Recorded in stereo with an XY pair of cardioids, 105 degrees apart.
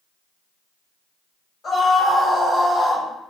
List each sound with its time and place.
1.6 s a scream: 30° left, 1.5 m